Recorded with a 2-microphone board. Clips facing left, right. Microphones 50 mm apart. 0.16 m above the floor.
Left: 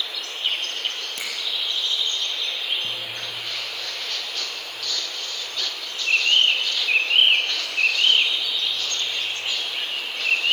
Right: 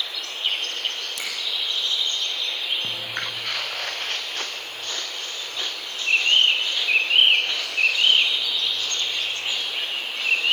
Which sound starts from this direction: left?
A finger snap, at 1.2 s.